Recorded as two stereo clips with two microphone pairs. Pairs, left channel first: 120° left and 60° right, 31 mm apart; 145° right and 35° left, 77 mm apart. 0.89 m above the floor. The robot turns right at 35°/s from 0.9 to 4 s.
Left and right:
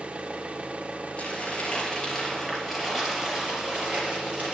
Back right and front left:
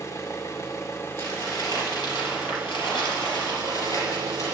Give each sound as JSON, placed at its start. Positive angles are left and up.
{"t": 0.0, "sound": "an engine running", "azimuth_deg": -95, "distance_m": 1.0}
{"t": 1.2, "sound": "crumpling", "azimuth_deg": 165, "distance_m": 4.0}